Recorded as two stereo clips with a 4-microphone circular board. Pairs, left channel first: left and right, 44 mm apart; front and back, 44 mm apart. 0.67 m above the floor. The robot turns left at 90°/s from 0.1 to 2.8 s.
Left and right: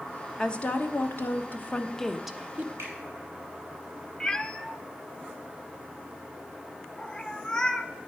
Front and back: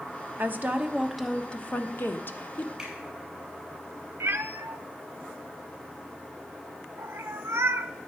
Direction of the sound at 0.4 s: 165° left.